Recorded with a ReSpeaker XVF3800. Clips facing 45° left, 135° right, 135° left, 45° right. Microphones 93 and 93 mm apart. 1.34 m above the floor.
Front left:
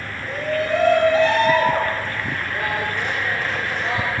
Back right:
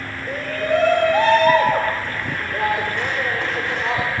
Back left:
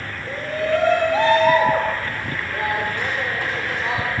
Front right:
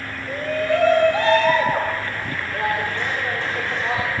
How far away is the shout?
About 5 m.